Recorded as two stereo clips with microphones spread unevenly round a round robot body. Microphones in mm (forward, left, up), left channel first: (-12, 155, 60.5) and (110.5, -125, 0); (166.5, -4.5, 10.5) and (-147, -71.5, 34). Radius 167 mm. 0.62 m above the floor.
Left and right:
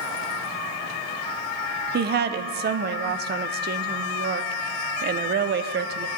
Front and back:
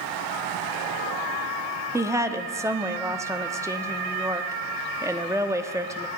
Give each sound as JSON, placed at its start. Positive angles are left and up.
{"t": 1.9, "sound": "a woman speaking", "azimuth_deg": -85, "distance_m": 0.7}